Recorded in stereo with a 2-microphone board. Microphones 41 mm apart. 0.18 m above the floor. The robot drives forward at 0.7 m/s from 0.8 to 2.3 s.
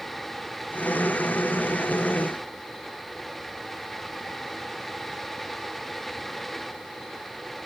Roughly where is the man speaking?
I don't hear a man speaking.